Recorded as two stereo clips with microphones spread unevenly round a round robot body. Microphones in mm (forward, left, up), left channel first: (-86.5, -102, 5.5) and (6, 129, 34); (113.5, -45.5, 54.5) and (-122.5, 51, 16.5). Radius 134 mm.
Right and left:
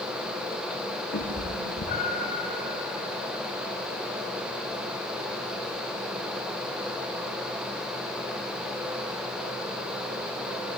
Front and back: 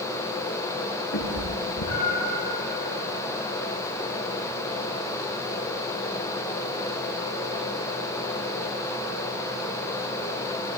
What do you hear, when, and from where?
1.1 s a cat meowing: 60° right, 6 m; by 2.4 s 40° right, 6.5 m